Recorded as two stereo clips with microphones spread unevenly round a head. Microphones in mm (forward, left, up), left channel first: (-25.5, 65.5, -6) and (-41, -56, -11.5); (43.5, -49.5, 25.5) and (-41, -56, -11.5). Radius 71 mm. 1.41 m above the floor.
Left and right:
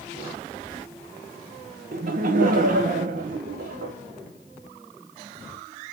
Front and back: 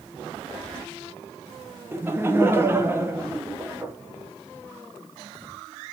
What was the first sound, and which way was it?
Laughter, 115° right.